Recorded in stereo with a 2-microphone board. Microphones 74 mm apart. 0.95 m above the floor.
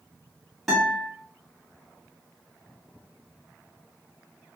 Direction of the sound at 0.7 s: Centre (ahead or behind).